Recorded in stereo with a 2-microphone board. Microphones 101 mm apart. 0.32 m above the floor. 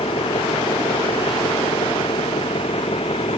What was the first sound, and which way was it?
An engine running, 80° left.